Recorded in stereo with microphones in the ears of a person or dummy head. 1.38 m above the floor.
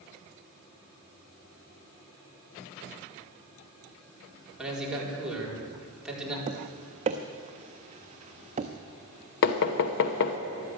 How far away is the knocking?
About 1.0 m.